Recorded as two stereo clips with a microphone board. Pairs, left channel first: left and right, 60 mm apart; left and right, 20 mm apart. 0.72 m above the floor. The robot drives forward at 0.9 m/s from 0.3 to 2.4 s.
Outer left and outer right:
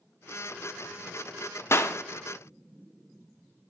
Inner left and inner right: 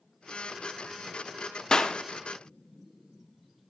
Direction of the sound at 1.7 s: 45° left (ahead or behind).